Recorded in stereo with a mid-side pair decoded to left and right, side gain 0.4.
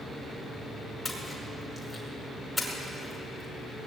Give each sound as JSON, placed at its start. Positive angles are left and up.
{"t": 1.1, "sound": "a splash", "azimuth_deg": 15, "distance_m": 5.0}